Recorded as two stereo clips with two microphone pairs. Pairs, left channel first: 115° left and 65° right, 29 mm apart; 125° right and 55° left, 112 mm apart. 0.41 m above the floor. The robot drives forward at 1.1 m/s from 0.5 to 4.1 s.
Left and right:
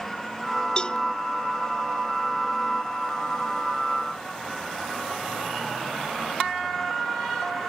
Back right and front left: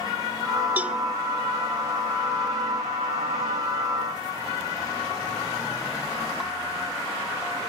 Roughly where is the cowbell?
Left.